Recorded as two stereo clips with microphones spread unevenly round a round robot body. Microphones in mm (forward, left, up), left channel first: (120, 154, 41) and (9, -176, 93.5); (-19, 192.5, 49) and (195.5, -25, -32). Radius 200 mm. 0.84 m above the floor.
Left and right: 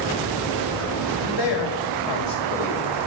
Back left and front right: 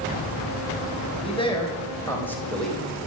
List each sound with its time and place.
1.1 s a man speaking: 60° left, 4.5 m; by 3.1 s 40° left, 5 m